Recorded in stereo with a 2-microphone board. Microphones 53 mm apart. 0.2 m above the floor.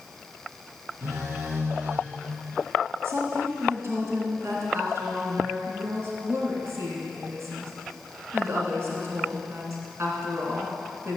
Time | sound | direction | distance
1.0 | a phone buzzing | 50° right (ahead or behind) | 2 m
3.0 | a woman speaking | 55° right (ahead or behind) | 2.5 m